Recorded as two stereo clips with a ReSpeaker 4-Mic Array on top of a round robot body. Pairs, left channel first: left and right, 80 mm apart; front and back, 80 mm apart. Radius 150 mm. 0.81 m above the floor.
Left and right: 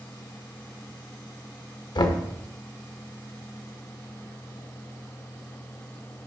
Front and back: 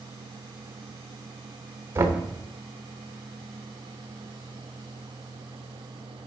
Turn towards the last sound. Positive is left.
turn(degrees=120)